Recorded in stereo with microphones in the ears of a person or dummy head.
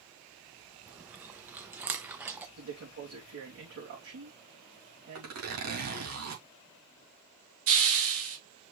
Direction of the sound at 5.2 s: 85° right.